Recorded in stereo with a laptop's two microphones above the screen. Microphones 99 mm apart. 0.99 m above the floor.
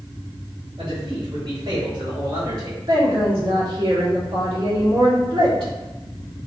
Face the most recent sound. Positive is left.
turn(degrees=-65)  # may be behind; listen again after turning